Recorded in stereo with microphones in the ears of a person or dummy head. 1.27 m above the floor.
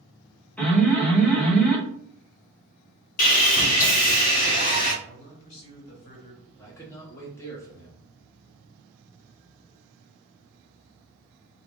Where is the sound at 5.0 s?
45° left (ahead or behind), 1.9 m.